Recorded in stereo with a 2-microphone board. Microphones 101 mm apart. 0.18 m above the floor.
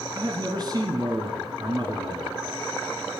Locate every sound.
0.1 s a man speaking: 45° right (ahead or behind), 1.3 m